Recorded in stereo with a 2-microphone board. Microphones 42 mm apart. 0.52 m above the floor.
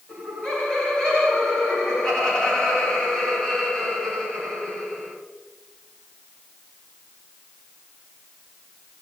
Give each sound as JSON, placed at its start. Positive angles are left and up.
{"t": 0.1, "sound": "laughter", "side_deg": 15, "distance_m": 4.0}